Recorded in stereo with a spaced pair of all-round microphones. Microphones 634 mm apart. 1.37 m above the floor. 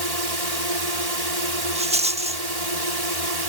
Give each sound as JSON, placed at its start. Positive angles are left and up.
{"t": 0.0, "sound": "a drone", "side_deg": -75}
{"t": 1.8, "sound": "a rattle", "side_deg": -10}